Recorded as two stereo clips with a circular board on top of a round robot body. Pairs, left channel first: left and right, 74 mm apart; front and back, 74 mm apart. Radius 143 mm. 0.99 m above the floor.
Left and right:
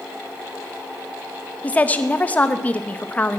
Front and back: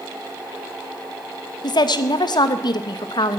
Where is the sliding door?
I don't hear a sliding door.